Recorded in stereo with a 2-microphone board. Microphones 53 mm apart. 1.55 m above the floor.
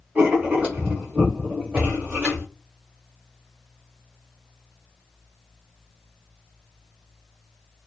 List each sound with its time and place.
0.1 s writing: 15° right (ahead or behind), 1.3 m